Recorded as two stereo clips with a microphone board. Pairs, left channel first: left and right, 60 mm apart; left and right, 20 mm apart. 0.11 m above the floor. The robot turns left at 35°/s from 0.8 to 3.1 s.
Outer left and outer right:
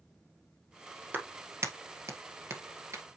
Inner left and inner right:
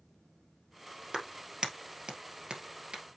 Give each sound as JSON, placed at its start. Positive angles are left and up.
{"t": 1.1, "sound": "a clap", "side_deg": -35, "distance_m": 1.6}